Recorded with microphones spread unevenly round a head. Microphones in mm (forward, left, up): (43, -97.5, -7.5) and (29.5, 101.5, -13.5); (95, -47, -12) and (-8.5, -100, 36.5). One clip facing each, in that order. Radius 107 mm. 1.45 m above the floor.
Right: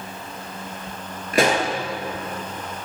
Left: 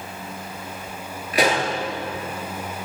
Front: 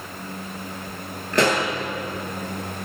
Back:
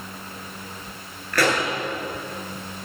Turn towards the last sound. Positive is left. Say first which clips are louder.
# right 2 dB, front 2 dB
turn(degrees=-45)